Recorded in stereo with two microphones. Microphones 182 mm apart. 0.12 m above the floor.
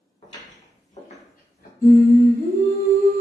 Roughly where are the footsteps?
Left.